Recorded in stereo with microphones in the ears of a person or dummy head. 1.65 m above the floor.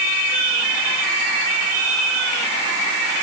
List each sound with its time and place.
Only background noise.